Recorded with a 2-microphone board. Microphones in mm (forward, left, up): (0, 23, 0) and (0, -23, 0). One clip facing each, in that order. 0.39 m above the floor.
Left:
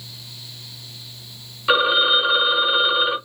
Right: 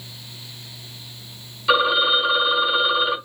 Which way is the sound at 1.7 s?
20° left (ahead or behind).